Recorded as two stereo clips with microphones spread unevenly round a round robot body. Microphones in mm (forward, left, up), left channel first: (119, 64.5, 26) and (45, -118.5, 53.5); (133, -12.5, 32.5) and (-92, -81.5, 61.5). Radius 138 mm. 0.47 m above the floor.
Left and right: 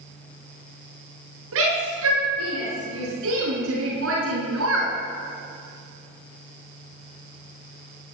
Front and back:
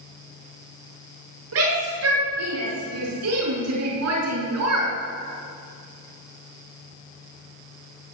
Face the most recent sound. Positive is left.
turn(degrees=-150)